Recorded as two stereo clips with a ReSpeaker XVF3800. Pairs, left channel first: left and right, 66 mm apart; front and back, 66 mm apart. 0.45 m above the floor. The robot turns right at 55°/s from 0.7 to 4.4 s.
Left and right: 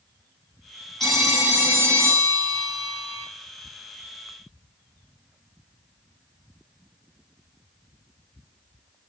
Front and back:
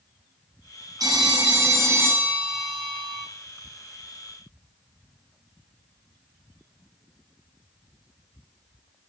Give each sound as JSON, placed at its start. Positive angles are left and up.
{"t": 1.0, "sound": "a phone ringing", "azimuth_deg": 170, "distance_m": 1.7}